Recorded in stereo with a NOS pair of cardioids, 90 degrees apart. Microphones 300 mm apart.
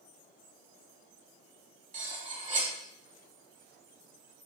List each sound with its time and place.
1.9 s cutlery clinking: 25° right, 1.4 m